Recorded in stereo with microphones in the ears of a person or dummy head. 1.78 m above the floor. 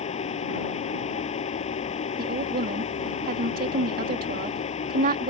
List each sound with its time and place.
0.0 s a fan: 35° left (ahead or behind)
2.2 s a woman speaking: 60° right (ahead or behind)